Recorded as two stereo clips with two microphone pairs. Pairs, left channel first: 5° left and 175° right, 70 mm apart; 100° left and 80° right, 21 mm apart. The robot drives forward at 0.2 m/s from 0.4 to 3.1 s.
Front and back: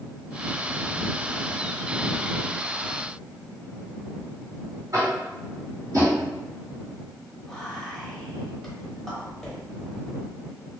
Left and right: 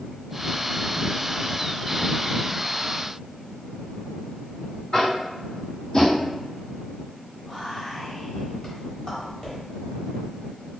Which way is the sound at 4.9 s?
145° left.